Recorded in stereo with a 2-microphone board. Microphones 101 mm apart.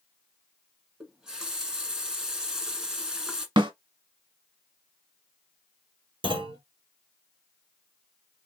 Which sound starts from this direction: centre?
A running tap, at 1.0 s.